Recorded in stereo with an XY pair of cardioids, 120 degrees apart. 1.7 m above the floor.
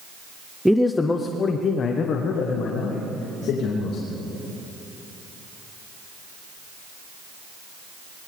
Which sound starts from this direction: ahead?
A man speaking, at 0.7 s.